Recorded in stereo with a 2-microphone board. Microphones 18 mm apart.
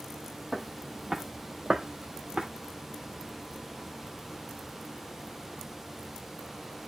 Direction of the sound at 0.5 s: Centre (ahead or behind).